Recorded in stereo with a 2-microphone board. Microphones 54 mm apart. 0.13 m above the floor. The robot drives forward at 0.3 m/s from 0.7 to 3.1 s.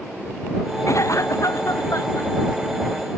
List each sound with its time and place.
0.9 s a cough: 70° left (ahead or behind); by 2.3 s 75° left (ahead or behind)